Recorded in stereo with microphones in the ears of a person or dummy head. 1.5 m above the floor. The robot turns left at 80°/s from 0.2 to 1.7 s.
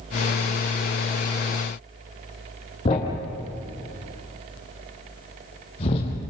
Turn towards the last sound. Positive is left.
turn(degrees=40)  # may be behind; listen again after turning